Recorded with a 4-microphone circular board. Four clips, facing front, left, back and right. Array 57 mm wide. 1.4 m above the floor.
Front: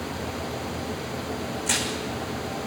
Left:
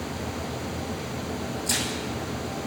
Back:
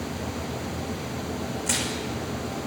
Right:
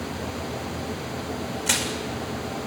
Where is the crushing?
95° right, 7 m.